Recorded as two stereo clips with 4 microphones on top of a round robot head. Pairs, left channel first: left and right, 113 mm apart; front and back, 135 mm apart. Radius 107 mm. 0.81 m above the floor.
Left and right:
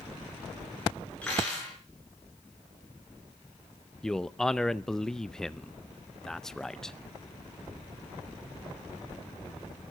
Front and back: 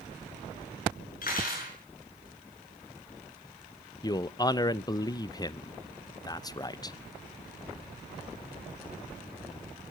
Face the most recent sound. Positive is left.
turn(degrees=10)